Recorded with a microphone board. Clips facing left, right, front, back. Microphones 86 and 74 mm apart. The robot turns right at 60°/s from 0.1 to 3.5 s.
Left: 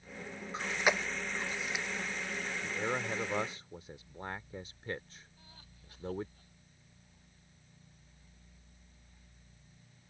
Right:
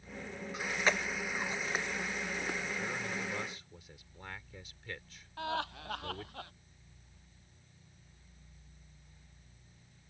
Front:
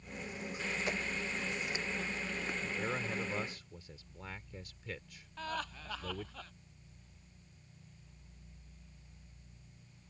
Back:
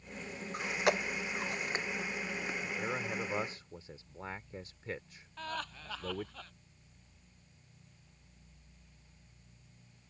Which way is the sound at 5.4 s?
90° right.